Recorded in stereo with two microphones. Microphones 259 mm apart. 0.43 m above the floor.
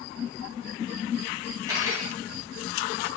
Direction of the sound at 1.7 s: 15° right (ahead or behind).